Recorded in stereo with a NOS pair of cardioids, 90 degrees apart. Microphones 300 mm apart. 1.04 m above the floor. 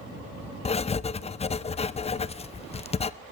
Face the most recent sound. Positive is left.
turn(degrees=20)